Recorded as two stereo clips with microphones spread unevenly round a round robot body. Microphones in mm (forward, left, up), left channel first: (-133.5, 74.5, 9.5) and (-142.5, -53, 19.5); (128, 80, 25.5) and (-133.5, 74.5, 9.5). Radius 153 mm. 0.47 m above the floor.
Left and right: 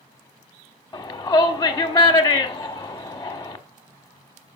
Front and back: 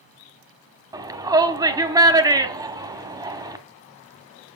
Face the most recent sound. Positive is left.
turn(degrees=125)